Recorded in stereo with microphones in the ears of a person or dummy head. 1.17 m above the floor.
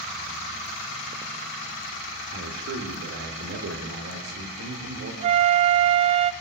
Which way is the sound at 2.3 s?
70° right (ahead or behind).